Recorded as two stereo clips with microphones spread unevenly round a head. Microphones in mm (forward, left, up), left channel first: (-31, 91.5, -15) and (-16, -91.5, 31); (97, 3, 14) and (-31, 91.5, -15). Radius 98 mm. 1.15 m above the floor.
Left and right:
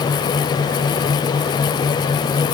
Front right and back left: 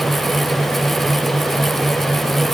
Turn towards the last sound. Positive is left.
No sound to turn to.